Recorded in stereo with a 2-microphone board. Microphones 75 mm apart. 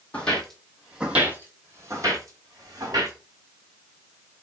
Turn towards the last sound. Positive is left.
turn(degrees=-60)  # may be behind; listen again after turning